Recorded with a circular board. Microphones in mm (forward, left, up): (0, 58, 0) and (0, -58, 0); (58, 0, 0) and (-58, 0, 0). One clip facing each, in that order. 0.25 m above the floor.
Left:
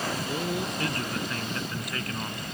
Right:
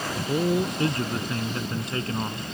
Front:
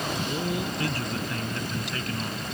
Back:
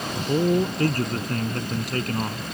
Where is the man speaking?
145° right.